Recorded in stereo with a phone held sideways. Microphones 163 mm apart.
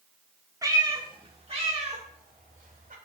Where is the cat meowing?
20° right (ahead or behind), 1.2 m; by 3.0 s 55° right (ahead or behind), 2 m.